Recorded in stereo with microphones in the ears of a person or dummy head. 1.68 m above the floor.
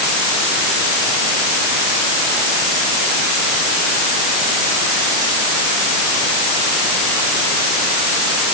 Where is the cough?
I don't hear a cough.